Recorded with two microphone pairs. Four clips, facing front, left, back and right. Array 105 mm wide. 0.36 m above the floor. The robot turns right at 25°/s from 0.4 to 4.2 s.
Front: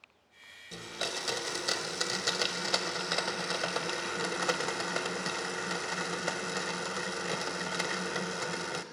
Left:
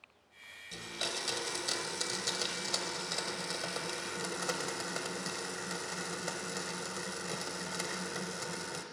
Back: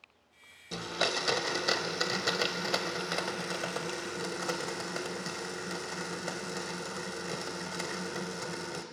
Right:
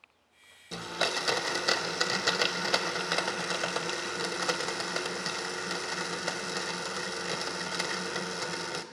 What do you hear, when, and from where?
0.7 s a blender: 130° right, 1.0 m; by 8.8 s 45° right, 1.0 m